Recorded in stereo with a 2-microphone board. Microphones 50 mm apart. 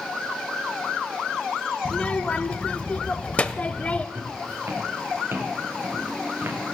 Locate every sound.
1.9 s a child speaking: 25° left (ahead or behind), 0.5 m
4.2 s footsteps: 65° right (ahead or behind), 6 m; by 6.6 s 50° right (ahead or behind), 4 m